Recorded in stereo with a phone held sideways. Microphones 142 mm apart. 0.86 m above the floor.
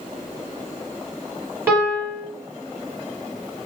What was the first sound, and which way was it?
A piano, 20° right (ahead or behind).